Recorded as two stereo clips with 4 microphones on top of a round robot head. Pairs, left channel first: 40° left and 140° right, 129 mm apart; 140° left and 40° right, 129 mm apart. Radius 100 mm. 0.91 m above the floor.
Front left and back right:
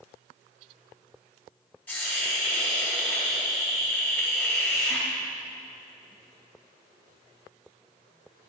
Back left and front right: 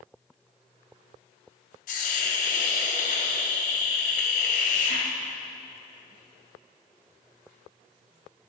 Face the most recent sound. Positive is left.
turn(degrees=115)